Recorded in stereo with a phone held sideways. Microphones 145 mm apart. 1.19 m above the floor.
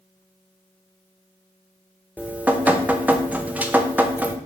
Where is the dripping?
10° right (ahead or behind), 0.7 m.